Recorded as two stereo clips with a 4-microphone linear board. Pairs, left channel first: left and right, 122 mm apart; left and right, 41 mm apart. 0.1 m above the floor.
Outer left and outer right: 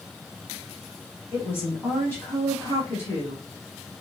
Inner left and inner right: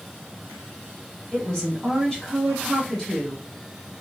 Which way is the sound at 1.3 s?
20° left (ahead or behind).